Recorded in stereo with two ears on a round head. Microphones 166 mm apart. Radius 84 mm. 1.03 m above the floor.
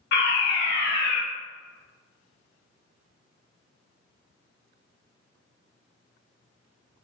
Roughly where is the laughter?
No laughter in this recording.